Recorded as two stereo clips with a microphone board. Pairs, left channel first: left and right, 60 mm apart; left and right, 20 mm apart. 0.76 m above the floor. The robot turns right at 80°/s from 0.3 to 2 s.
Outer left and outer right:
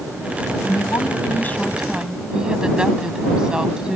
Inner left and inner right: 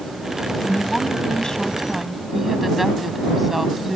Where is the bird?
No bird in this recording.